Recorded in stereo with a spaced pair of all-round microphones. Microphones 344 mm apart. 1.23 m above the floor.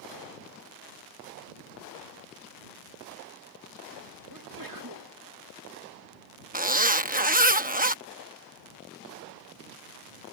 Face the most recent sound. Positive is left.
turn(degrees=-25)  # may be behind; listen again after turning